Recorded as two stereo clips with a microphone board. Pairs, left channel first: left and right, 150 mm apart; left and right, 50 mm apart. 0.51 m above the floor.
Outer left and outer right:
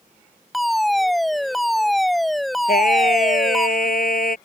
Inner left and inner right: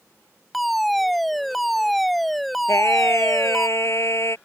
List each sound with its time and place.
0.5 s a fire alarm: centre (ahead or behind)
2.7 s singing: 70° left (ahead or behind)